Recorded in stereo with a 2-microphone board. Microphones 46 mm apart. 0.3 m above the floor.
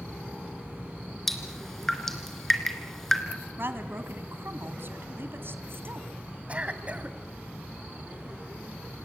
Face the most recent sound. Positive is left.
turn(degrees=-30)  # may be behind; listen again after turning